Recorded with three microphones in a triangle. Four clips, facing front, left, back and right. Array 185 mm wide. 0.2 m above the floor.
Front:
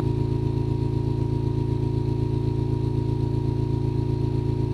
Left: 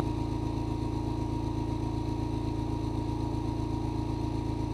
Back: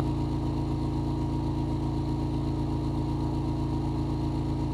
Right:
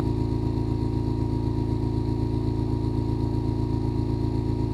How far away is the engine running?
About 1.4 m.